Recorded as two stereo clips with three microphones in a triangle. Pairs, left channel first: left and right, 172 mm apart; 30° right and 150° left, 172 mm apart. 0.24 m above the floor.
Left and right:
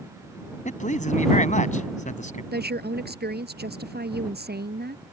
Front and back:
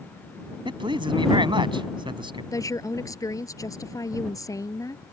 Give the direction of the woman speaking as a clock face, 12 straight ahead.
3 o'clock.